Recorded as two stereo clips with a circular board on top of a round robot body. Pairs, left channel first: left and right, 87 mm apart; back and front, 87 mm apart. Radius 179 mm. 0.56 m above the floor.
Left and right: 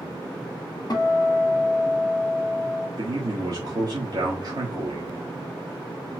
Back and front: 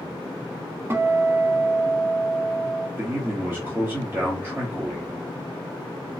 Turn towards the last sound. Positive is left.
turn(degrees=-60)